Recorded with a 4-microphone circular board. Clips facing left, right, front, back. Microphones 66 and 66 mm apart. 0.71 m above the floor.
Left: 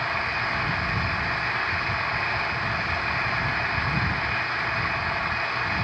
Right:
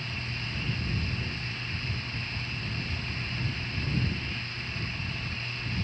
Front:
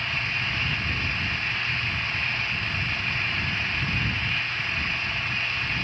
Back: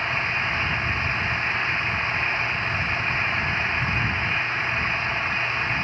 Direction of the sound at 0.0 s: 120° left.